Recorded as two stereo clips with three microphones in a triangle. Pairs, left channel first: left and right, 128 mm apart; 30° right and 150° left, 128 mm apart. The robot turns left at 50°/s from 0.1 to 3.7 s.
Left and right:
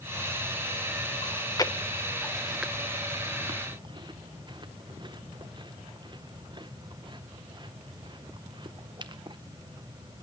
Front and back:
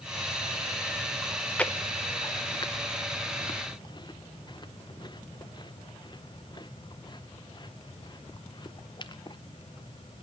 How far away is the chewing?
About 0.7 m.